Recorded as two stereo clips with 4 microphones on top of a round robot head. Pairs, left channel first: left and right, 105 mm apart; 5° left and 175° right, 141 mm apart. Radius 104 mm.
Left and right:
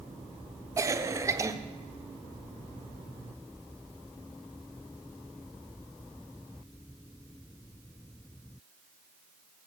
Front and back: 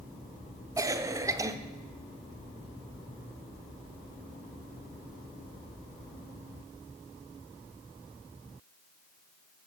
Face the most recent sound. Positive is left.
turn(degrees=-125)